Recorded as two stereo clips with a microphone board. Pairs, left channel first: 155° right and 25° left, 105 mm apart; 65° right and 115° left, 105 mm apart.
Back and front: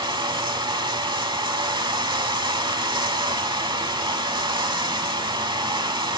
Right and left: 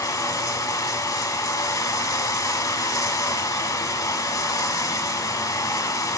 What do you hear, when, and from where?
0.0 s running water: 15° right, 0.8 m